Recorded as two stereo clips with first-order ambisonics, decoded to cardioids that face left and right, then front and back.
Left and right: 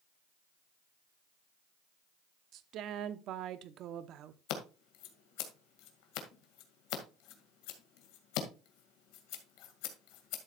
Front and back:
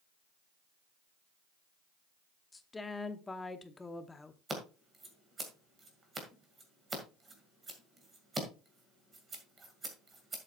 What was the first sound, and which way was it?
A woman speaking, 75° right.